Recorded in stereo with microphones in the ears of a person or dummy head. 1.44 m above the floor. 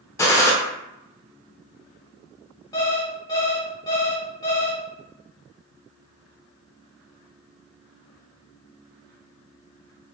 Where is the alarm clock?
20° left (ahead or behind), 0.7 m.